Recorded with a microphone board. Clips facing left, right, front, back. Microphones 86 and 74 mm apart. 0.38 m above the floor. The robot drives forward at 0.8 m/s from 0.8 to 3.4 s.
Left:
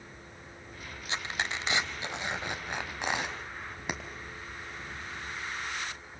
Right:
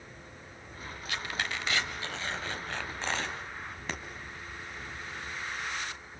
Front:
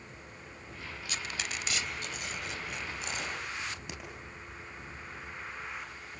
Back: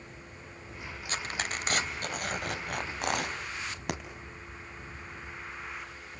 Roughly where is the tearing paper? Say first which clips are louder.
Left 1 dB, back 4 dB; behind left.